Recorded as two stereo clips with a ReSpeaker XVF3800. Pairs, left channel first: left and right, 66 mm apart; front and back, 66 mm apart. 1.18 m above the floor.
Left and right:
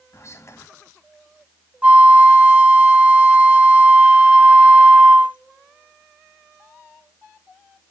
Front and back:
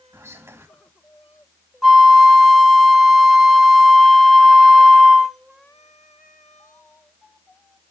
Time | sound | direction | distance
0.1 | whispering | 135° left | 1.7 m
1.8 | a flute | 95° right | 1.0 m